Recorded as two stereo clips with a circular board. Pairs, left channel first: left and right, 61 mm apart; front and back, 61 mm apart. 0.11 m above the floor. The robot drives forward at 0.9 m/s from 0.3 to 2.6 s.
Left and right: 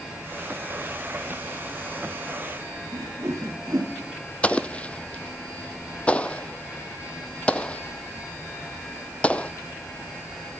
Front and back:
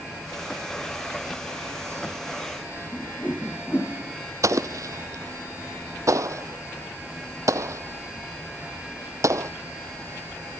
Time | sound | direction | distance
2.9 | a whoosh | 60° right | 4.5 m
4.4 | an explosion | 160° left | 0.7 m